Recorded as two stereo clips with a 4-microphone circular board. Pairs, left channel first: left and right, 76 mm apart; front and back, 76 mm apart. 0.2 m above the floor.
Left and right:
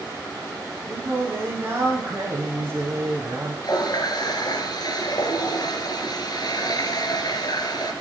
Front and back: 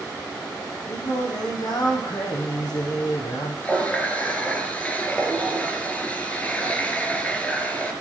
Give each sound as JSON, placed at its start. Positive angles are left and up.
{"t": 0.9, "sound": "singing", "azimuth_deg": -30, "distance_m": 4.5}
{"t": 3.6, "sound": "a running tap", "azimuth_deg": 70, "distance_m": 2.5}